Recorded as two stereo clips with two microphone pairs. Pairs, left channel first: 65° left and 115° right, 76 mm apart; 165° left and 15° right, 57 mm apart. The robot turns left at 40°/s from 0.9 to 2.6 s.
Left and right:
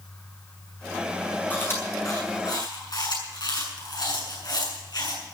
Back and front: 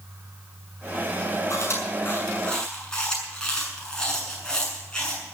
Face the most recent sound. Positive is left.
turn(degrees=90)